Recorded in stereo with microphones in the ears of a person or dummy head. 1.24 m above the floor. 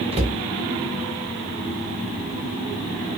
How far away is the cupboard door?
About 0.8 m.